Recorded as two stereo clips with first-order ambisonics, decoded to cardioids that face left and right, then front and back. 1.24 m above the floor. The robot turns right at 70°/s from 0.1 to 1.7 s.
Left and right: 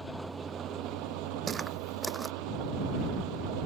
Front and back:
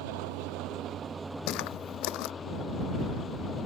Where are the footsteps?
25° right; by 2.3 s 10° right.